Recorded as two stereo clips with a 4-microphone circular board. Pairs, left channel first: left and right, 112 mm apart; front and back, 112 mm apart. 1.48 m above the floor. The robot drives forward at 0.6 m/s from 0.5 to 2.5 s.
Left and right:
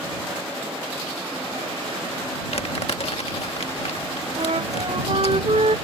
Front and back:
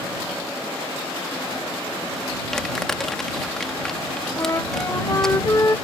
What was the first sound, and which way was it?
Crumpling, 85° left.